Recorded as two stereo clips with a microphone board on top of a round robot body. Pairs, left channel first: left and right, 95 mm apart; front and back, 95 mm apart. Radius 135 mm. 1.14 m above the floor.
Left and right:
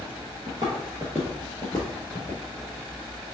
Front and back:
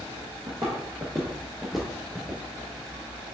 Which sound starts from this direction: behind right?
Footsteps, at 0.5 s.